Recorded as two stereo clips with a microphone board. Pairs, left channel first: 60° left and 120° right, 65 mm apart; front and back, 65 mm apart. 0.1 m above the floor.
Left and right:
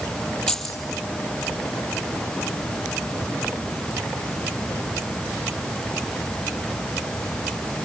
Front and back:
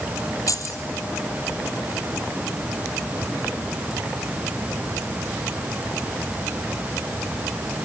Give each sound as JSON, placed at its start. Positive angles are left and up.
{"t": 0.5, "sound": "keys jangling", "azimuth_deg": -15, "distance_m": 2.0}